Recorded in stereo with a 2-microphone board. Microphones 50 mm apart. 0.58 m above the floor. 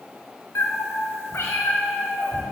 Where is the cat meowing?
70° left (ahead or behind), 1.0 m; by 2.4 s 60° left (ahead or behind), 2.5 m.